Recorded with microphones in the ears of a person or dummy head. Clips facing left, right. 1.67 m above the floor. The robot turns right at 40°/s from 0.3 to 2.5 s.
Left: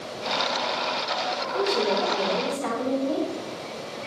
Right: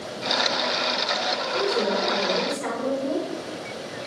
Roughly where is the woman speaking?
Behind.